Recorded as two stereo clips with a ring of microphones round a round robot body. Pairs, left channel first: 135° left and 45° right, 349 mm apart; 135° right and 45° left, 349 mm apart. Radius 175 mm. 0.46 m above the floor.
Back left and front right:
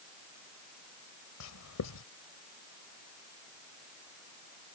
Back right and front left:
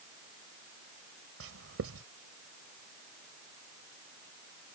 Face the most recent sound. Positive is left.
turn(degrees=95)